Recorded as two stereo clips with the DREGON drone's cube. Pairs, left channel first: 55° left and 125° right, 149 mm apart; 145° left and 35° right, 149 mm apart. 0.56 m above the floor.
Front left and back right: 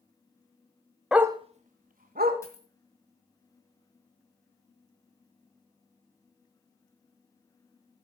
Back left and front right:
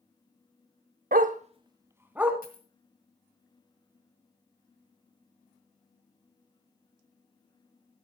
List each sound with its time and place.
1.1 s a dog barking: 40° right, 0.5 m; by 2.3 s 115° right, 1.2 m
2.4 s a dropped coin: 125° left, 1.8 m